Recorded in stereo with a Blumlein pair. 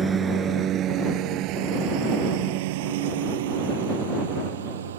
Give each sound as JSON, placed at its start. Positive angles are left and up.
{"t": 0.0, "sound": "a lawn mower", "azimuth_deg": -20}